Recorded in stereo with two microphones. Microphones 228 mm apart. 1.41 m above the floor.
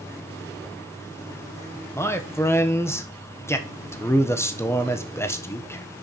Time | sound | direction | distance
1.9 | a man speaking | 10° left (ahead or behind) | 1.0 m